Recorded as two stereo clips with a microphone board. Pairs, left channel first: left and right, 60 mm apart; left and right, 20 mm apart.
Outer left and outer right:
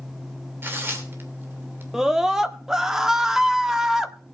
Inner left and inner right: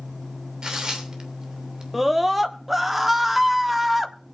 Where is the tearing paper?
35° right (ahead or behind), 3 m.